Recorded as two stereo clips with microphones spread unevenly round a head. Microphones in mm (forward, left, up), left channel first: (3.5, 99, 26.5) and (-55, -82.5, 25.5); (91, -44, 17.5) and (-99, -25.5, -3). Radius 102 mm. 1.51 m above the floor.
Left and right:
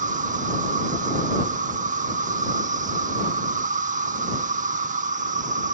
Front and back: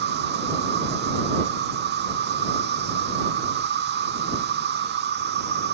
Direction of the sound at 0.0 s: 155° right.